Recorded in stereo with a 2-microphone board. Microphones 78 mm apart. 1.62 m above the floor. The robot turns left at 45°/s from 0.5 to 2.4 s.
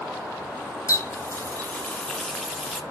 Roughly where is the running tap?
Left.